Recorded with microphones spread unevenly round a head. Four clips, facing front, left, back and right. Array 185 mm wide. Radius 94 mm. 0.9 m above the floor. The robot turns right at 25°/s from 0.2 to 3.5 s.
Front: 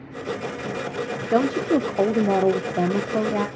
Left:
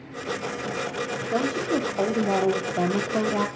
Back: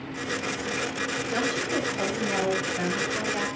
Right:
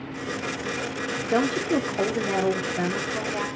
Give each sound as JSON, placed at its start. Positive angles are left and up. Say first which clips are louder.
{"t": 1.3, "sound": "a woman speaking", "louder": "right 2 dB, front 10 dB", "azimuth_deg": -20, "distance_m": 2.0}